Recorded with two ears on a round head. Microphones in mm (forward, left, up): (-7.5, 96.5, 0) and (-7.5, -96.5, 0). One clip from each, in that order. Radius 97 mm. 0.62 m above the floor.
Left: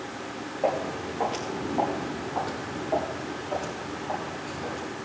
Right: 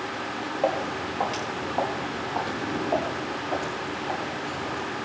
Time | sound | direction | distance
0.6 | footsteps | 40° right (ahead or behind) | 4.5 m